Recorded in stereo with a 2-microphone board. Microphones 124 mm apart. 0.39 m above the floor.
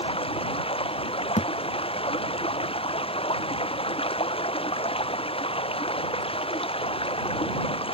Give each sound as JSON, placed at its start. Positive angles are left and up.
{"t": 0.0, "sound": "running water", "side_deg": 50}
{"t": 1.4, "sound": "a thud", "side_deg": 75}